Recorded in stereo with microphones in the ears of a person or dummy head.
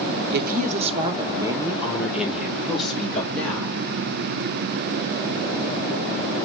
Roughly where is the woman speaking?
Right.